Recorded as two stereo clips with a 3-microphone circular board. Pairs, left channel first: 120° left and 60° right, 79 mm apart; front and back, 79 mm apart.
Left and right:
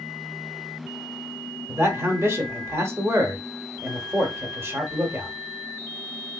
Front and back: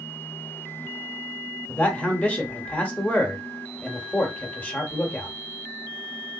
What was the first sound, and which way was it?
A man speaking, 55° right.